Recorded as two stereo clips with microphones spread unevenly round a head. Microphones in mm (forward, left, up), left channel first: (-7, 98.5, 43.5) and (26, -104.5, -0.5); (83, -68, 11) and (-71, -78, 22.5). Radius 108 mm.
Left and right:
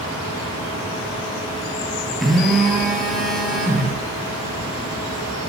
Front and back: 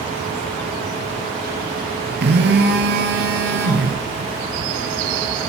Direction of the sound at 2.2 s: 175° right.